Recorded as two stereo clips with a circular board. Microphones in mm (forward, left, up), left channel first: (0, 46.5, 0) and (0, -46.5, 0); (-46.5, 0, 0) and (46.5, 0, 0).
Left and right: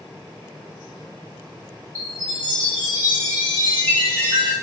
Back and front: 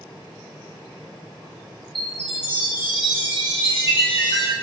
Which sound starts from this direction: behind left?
A chime, at 1.9 s.